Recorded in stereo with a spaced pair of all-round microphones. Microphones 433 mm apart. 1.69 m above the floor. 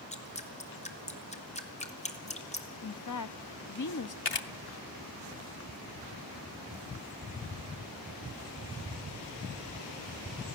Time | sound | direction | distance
0.1 | dripping | 15° left (ahead or behind) | 1.5 m
2.8 | a woman speaking | 45° left (ahead or behind) | 0.7 m
4.2 | a camera shutter | 70° left (ahead or behind) | 0.9 m